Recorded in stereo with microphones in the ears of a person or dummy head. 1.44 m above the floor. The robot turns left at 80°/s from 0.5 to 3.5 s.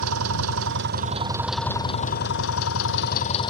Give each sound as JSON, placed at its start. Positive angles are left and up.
{"t": 0.0, "sound": "an engine running", "azimuth_deg": -95}